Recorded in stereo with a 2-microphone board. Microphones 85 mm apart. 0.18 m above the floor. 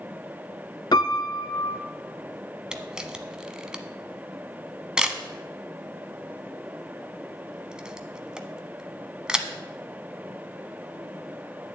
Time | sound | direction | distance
0.9 | a piano | 60° left (ahead or behind) | 0.7 m
2.7 | a camera shutter | 10° right (ahead or behind) | 0.7 m